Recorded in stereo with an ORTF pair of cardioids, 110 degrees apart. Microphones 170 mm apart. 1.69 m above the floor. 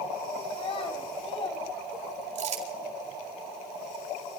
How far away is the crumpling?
About 6.5 m.